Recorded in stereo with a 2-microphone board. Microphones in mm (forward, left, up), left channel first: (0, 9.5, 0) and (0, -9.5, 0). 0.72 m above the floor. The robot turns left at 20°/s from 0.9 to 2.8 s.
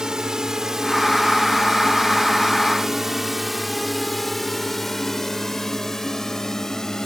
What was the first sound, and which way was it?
A drone, 40° right (ahead or behind).